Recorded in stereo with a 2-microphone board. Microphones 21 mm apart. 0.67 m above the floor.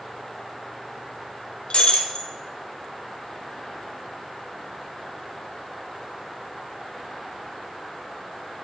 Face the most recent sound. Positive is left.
turn(degrees=70)  # may be behind; listen again after turning